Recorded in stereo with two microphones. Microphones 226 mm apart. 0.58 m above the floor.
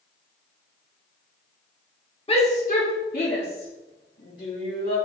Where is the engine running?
I don't hear an engine running.